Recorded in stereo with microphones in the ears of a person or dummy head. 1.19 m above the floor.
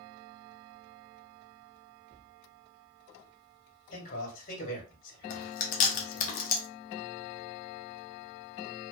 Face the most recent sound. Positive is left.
turn(degrees=40)  # may be behind; listen again after turning